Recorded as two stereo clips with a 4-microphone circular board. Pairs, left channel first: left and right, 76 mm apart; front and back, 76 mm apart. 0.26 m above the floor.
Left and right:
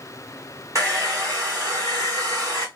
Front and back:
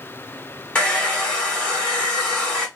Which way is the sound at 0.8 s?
70° right.